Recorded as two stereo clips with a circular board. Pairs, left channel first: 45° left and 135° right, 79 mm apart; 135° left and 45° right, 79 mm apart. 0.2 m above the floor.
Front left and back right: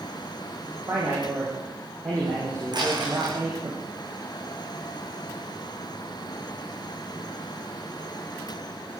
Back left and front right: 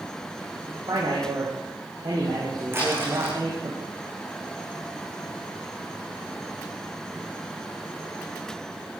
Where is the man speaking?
85° right, 7 m.